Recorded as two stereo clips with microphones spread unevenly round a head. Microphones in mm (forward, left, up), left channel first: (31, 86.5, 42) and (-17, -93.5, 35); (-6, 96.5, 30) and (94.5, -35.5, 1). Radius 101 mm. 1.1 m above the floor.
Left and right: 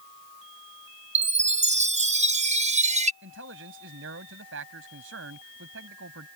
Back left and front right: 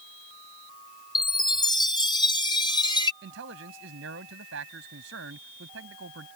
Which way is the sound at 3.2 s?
85° right.